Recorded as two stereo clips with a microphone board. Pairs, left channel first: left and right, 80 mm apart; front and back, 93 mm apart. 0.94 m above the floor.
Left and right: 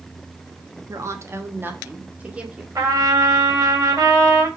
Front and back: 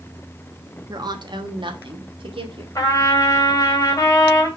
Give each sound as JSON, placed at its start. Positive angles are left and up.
{"t": 0.9, "sound": "a woman speaking", "azimuth_deg": -135, "distance_m": 1.0}
{"t": 2.8, "sound": "a trumpet", "azimuth_deg": -50, "distance_m": 2.0}